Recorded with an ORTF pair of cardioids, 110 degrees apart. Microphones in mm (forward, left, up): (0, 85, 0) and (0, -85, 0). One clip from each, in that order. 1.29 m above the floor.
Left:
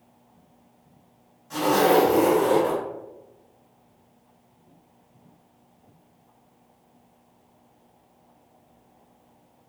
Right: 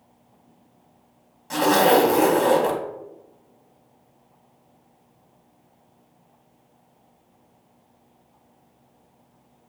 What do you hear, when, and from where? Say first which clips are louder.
1.5 s a zipper: right 2 dB; 65° right, 1.1 m